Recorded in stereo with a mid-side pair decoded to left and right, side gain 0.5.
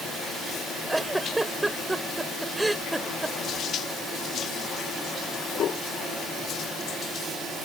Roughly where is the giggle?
Ahead.